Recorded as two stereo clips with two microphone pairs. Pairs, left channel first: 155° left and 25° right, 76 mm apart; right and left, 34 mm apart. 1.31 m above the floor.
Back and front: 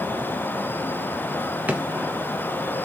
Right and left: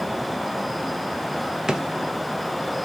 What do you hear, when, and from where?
1.7 s a drawer: 35° left, 0.6 m